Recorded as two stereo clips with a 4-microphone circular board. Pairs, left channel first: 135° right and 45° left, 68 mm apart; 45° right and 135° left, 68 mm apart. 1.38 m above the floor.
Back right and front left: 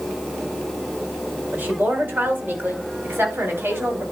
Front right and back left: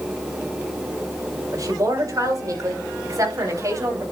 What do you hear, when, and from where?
1.5 s a woman speaking: 110° left, 5.5 m; by 4.0 s 100° left, 4 m